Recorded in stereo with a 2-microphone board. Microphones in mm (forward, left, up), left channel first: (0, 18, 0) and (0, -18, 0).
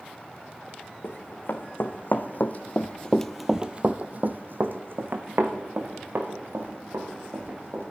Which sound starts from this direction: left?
Running footsteps, at 1.0 s.